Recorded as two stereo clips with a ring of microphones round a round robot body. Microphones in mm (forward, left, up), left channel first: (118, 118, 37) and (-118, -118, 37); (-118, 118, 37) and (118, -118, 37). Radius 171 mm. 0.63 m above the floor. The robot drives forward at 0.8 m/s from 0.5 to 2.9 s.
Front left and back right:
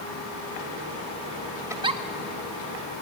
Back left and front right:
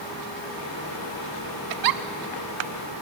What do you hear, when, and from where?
1.7 s a giggle: 55° right, 1.0 m; by 2.0 s 65° right, 0.9 m